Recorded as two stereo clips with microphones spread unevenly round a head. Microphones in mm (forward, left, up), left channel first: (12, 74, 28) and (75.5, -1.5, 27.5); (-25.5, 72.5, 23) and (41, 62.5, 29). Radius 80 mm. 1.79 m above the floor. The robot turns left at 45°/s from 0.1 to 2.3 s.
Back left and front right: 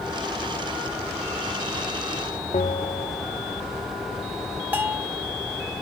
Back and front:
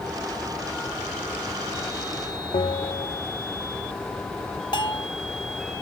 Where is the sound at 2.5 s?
175° left.